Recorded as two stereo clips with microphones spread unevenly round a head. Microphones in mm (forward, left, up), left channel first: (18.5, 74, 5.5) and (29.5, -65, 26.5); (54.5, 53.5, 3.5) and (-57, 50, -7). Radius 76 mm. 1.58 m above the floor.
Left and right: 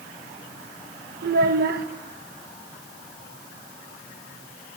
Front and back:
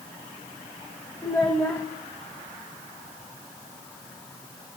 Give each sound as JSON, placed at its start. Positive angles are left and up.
{"t": 1.2, "sound": "a child speaking", "azimuth_deg": -75, "distance_m": 1.4}